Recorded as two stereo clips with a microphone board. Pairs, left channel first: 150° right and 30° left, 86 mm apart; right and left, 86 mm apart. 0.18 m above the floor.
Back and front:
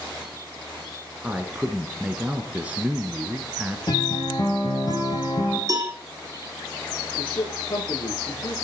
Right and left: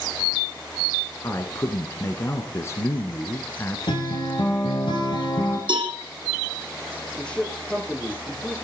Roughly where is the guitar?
Right.